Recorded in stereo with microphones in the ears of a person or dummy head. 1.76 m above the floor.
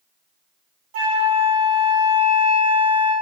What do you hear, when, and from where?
0.9 s a flute: 50° right (ahead or behind), 1.9 m